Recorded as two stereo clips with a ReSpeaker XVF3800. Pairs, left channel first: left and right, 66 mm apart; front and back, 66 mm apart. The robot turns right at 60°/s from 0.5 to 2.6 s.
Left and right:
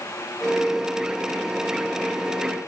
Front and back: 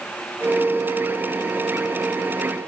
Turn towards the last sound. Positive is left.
No sound to turn to.